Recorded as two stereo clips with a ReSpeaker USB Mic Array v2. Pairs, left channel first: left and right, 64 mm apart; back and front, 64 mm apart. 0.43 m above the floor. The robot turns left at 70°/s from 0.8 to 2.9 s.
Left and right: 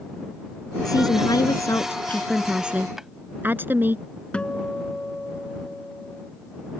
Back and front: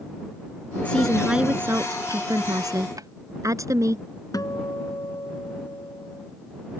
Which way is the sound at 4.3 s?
160° left.